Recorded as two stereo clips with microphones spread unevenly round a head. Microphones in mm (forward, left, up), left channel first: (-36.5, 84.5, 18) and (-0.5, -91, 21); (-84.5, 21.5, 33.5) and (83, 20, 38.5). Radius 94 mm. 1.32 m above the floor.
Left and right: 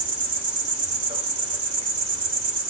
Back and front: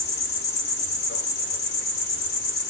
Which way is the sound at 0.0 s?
140° right.